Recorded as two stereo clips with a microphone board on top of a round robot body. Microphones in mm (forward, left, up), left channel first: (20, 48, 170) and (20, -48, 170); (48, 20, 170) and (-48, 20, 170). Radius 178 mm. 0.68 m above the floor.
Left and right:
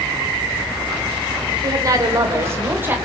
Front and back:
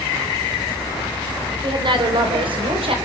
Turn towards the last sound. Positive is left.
turn(degrees=-160)